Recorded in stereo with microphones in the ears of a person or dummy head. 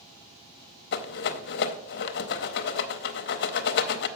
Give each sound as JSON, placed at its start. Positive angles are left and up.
{"t": 0.9, "sound": "a rattle", "side_deg": 55, "distance_m": 0.7}